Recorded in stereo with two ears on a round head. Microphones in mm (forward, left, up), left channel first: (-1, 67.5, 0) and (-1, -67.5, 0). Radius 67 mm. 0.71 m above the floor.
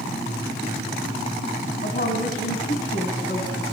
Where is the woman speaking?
55° left (ahead or behind), 4.5 m.